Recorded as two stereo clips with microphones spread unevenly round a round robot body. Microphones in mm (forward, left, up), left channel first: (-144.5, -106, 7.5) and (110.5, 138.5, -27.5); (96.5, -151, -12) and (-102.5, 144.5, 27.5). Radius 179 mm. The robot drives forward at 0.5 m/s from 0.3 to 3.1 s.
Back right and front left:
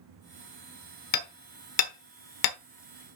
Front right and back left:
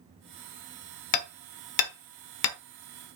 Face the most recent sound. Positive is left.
turn(degrees=-120)